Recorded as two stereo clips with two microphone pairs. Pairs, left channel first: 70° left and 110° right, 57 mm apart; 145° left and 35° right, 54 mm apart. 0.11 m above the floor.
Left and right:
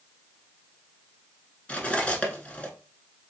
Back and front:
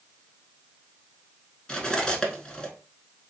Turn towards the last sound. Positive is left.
turn(degrees=95)